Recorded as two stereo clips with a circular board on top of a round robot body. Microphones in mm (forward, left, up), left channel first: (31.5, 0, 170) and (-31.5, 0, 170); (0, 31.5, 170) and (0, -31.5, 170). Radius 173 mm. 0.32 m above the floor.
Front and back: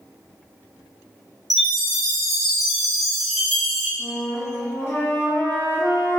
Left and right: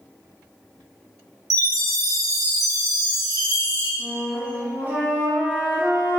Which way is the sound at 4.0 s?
35° right.